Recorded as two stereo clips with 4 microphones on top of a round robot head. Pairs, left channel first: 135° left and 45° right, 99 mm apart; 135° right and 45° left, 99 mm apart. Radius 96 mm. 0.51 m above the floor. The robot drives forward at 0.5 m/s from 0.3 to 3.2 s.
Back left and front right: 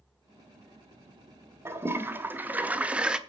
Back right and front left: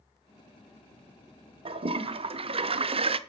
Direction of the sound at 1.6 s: 20° left.